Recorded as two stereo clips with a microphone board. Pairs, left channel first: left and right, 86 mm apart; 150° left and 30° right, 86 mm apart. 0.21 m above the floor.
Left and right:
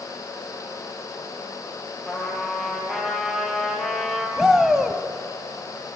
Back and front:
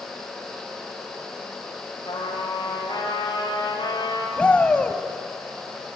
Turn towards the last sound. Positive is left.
turn(degrees=-165)